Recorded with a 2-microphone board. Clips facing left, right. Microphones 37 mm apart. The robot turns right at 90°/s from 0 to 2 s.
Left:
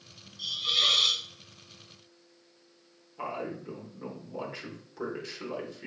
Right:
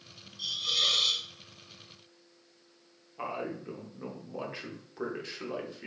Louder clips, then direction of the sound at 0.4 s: Left 2 dB; straight ahead.